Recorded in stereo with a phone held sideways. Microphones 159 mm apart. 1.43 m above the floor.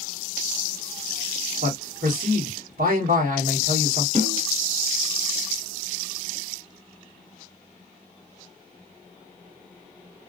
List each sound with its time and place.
1.6 s a man speaking: 80° right, 1.4 m
4.2 s a snare drum: 45° right (ahead or behind), 1.8 m